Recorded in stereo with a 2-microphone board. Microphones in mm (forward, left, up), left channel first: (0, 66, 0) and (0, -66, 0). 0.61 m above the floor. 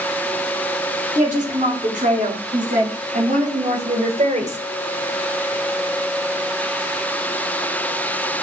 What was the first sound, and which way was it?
A woman speaking, 70° right (ahead or behind).